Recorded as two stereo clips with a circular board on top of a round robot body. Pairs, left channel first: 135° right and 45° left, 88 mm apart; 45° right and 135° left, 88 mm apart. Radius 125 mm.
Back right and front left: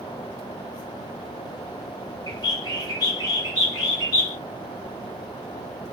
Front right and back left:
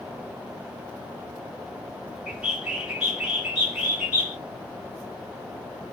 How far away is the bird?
About 1.6 m.